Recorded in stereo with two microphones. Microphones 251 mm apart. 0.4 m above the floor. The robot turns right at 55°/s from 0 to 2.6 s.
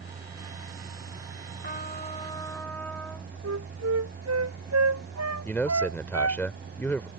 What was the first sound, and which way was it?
A trumpet, 115° left.